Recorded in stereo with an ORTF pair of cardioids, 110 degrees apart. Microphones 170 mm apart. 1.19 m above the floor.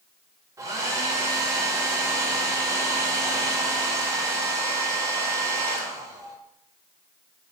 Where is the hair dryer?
20° right, 0.5 m.